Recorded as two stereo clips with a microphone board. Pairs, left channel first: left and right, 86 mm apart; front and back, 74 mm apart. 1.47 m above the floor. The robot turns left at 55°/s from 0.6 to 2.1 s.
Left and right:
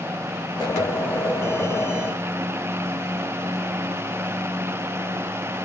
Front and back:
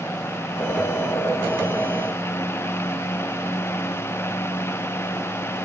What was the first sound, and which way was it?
Only background noise.